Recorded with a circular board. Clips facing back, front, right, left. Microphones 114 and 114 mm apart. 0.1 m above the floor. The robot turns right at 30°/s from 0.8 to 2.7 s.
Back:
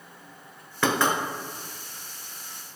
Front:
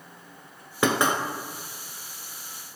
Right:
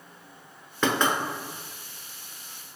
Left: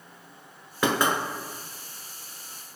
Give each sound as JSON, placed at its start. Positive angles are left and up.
{"t": 0.8, "sound": "knocking", "azimuth_deg": 25, "distance_m": 0.9}